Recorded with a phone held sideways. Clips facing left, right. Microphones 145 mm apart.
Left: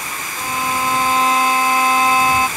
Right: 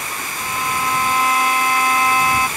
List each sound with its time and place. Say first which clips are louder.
0.4 s a violin: left 3 dB; 30° left (ahead or behind)